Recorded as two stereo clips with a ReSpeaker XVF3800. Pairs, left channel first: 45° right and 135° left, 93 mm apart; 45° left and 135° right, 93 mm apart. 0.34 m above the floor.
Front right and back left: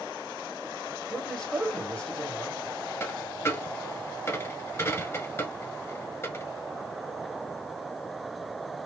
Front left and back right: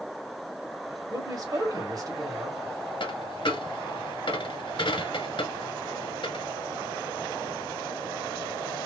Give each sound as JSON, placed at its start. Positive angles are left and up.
{"t": 1.1, "sound": "a man speaking", "azimuth_deg": -120, "distance_m": 1.6}
{"t": 3.0, "sound": "a dropped coin", "azimuth_deg": 15, "distance_m": 1.1}